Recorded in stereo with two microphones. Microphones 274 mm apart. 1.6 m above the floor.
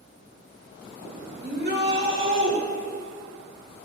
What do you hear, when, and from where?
1.4 s a shout: 35° right (ahead or behind), 2 m; by 2.6 s 50° right (ahead or behind), 1.9 m